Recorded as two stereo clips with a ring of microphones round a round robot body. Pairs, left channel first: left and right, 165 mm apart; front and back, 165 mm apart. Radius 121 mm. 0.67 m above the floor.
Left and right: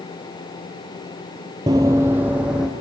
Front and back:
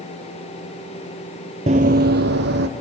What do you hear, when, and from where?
1.7 s running footsteps: 150° right, 0.8 m; by 2.7 s 175° right, 1.8 m